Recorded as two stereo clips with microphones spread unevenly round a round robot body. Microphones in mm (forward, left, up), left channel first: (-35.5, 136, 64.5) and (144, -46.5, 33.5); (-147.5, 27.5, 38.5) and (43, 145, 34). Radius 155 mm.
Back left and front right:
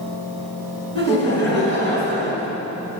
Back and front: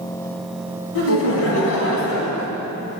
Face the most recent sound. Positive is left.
turn(degrees=-155)